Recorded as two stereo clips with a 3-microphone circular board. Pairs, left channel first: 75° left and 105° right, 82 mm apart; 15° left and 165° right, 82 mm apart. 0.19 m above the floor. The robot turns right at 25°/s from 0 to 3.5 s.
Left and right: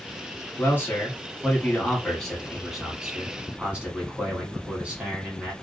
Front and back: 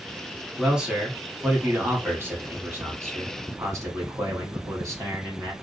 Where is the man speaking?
115° left, 1.3 m; by 5.5 s 175° right, 1.3 m.